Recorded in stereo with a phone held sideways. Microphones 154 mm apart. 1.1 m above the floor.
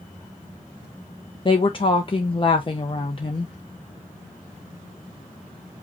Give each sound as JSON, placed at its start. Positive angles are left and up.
{"t": 1.4, "sound": "a woman speaking", "side_deg": 35, "distance_m": 0.5}